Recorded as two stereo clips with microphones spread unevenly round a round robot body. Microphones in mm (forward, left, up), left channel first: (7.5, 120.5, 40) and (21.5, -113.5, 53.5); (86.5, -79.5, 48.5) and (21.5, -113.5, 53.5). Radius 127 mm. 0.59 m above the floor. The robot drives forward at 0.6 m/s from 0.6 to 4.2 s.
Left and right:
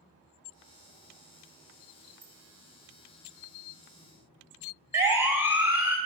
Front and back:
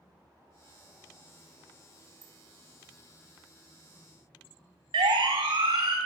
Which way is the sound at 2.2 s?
145° right.